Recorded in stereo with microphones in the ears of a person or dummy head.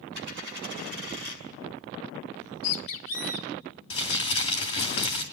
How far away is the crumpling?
About 3 m.